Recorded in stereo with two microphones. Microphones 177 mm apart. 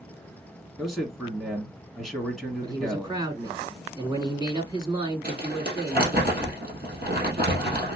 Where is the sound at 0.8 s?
Centre (ahead or behind), 1.7 m.